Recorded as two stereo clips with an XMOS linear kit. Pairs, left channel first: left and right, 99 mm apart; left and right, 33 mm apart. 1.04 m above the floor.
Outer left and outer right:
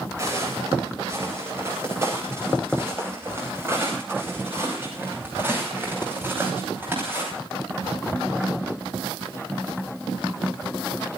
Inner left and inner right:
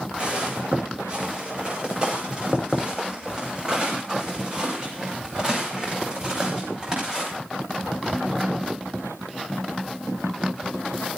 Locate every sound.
0.2 s footsteps: 30° right (ahead or behind), 10 m; by 7.3 s 20° right (ahead or behind), 13.5 m